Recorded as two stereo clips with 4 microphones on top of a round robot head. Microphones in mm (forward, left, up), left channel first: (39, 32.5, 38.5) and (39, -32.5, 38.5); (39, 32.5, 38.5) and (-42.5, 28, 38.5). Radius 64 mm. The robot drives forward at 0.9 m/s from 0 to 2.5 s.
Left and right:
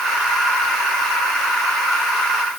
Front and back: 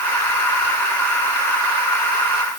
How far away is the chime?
I don't hear a chime.